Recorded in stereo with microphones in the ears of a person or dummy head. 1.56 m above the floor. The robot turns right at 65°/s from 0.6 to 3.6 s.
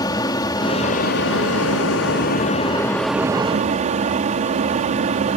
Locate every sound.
0.0 s an aircraft: 20° left; by 5.4 s 145° right